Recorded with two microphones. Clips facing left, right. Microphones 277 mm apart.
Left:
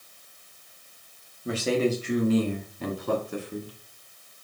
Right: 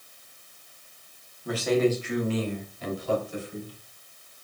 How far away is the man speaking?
About 2.5 m.